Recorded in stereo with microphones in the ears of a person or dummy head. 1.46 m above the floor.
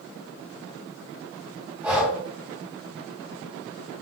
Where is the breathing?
15° right (ahead or behind), 2 m.